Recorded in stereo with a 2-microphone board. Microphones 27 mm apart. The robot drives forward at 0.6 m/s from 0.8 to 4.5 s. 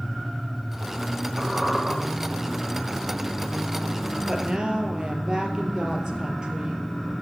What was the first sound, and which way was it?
A squeak, 15° right (ahead or behind).